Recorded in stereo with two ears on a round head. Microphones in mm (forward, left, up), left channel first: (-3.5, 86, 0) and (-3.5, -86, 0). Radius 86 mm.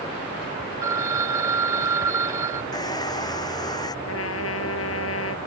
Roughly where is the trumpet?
Left.